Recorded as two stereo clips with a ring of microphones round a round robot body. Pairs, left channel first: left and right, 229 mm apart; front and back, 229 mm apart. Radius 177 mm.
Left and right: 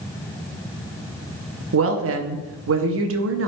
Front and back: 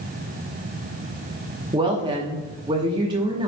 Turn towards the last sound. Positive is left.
turn(degrees=-110)